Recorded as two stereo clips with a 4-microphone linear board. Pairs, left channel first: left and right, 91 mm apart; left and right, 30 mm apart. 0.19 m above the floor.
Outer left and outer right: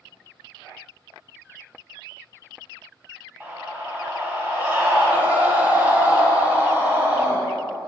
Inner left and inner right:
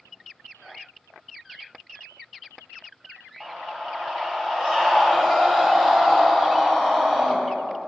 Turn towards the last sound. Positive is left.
turn(degrees=-20)  # may be behind; listen again after turning